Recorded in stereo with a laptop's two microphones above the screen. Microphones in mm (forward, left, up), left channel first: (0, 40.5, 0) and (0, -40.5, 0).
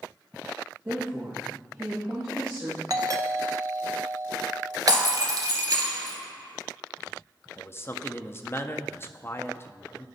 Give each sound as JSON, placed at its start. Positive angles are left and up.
{"t": 0.8, "sound": "a woman speaking", "side_deg": -30, "distance_m": 1.6}
{"t": 2.9, "sound": "a doorbell", "side_deg": -45, "distance_m": 0.7}
{"t": 4.9, "sound": "breaking glass", "side_deg": -55, "distance_m": 2.5}
{"t": 7.6, "sound": "a man speaking", "side_deg": 30, "distance_m": 0.6}